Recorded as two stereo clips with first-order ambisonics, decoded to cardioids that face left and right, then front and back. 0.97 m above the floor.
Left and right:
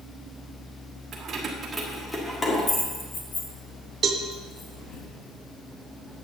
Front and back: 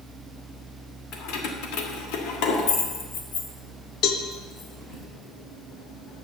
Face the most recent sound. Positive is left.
turn(degrees=-35)